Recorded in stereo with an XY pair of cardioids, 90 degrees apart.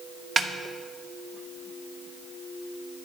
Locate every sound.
0.4 s a snare drum: 40° right, 1.1 m